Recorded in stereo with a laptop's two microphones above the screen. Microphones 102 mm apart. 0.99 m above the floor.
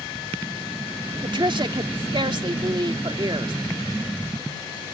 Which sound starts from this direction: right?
A woman speaking, at 1.2 s.